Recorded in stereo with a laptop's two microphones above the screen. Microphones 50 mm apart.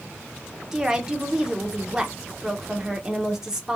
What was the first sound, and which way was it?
A woman speaking, 10° right (ahead or behind).